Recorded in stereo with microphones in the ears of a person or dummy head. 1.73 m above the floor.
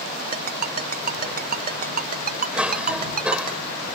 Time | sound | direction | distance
0.3 | a ringtone | 45° right (ahead or behind) | ?
2.5 | a cough | 5° right (ahead or behind) | ?